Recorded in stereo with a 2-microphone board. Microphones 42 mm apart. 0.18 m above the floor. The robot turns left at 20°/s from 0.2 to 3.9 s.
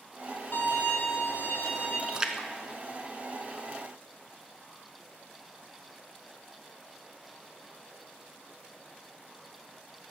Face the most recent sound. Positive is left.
turn(degrees=10)  # may be behind; listen again after turning